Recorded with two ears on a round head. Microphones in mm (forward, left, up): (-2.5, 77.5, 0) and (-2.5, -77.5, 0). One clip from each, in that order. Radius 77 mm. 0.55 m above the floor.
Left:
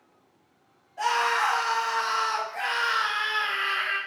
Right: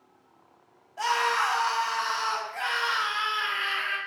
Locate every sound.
1.0 s a scream: 25° right (ahead or behind), 0.8 m